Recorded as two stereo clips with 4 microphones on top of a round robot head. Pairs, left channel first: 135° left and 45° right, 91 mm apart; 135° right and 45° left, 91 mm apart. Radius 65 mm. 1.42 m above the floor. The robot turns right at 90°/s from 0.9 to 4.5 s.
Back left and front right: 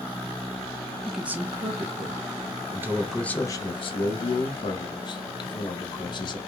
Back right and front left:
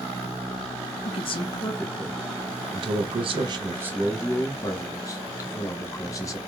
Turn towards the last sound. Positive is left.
turn(degrees=170)